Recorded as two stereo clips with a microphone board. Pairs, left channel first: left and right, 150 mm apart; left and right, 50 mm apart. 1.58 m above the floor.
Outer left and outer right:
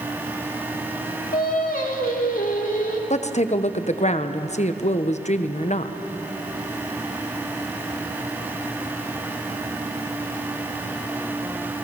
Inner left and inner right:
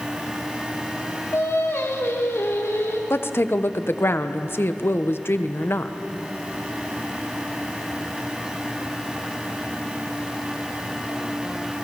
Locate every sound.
1.3 s singing: 80° left, 3 m
3.1 s a woman speaking: 55° left (ahead or behind), 1.2 m